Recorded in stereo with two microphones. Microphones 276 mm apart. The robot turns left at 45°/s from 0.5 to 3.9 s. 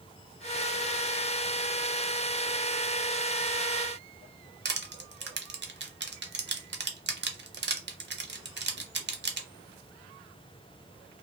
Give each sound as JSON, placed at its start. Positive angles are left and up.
{"t": 4.7, "sound": "crushing", "side_deg": -40, "distance_m": 0.6}